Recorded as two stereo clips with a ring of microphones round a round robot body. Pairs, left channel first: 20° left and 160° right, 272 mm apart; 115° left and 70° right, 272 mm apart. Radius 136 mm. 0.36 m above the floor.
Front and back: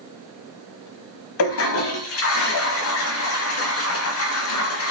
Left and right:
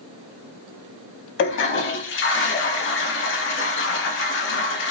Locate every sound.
1.4 s a toilet flushing: 65° left, 0.8 m